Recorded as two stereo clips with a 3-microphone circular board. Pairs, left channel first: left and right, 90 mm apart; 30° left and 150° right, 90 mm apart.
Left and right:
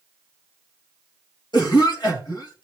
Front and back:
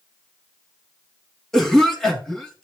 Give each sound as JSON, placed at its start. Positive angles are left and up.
{"t": 1.5, "sound": "a cough", "azimuth_deg": 115, "distance_m": 3.0}